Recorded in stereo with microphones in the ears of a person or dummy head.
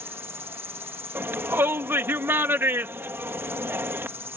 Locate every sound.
0.0 s an insect: 10° right (ahead or behind)
1.1 s a shout: 10° right (ahead or behind)